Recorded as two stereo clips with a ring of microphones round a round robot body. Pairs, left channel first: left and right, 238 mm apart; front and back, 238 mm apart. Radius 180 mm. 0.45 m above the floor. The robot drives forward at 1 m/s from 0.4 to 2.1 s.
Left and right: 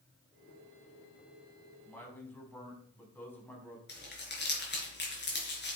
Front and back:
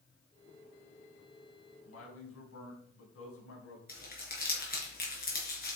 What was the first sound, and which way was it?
A man speaking, 10° left.